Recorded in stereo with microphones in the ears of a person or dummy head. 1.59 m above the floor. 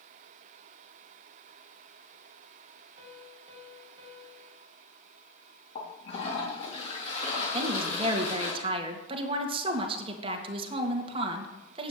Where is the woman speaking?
30° right (ahead or behind), 2.5 m.